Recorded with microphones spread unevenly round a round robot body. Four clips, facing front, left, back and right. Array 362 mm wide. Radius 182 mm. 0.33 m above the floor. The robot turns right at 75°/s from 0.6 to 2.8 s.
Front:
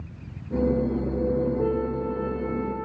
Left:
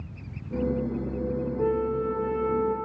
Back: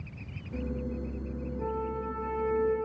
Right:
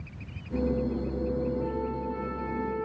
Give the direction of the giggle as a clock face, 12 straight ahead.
No giggle in this recording.